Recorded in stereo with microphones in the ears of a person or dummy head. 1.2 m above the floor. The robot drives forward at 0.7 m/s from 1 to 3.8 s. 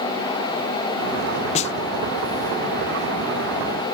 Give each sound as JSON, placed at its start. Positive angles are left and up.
{"t": 1.6, "sound": "a snare drum", "side_deg": 35}